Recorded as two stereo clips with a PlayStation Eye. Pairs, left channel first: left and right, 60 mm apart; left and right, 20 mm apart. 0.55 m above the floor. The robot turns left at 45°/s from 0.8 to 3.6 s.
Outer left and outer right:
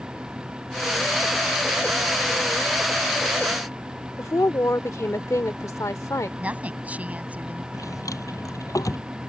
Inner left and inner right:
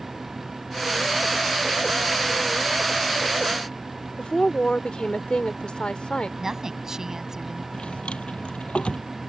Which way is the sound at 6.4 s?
25° right (ahead or behind).